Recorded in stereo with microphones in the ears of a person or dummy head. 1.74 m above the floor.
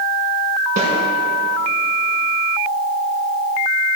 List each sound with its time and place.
0.8 s a snare drum: 50° right (ahead or behind), 5.5 m